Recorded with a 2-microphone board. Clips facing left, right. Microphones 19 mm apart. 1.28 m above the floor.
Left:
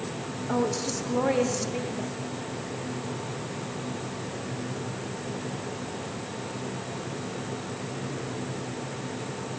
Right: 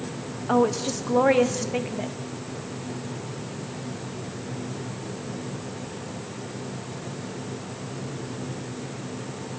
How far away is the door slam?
I don't hear a door slam.